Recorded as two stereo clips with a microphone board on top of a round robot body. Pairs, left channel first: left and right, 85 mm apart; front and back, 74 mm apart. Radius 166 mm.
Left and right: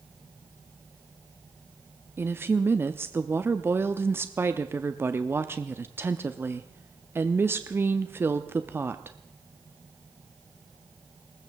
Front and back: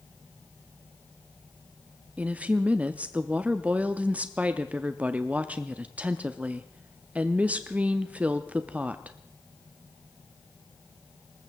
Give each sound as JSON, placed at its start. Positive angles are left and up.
{"t": 2.2, "sound": "a woman speaking", "azimuth_deg": -125, "distance_m": 0.9}